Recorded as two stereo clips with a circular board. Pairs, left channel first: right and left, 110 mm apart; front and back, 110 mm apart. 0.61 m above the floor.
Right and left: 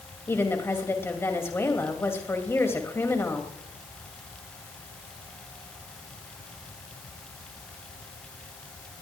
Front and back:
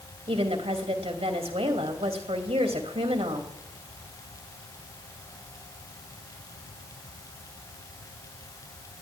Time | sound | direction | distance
0.3 | a woman speaking | 155° right | 2.5 m